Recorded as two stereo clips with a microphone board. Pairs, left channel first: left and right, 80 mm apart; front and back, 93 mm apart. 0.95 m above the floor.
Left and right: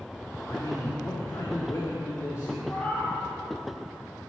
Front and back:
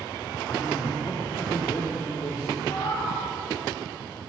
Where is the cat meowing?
20° left, 3 m.